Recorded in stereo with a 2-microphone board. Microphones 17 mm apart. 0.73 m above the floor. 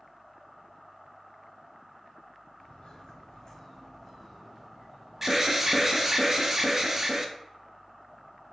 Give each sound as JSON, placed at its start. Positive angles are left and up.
{"t": 2.6, "sound": "footsteps", "side_deg": 55, "distance_m": 1.3}
{"t": 5.2, "sound": "an alarm", "side_deg": -25, "distance_m": 0.6}